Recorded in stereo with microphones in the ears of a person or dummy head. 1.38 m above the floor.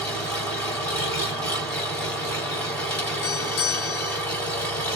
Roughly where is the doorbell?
Left.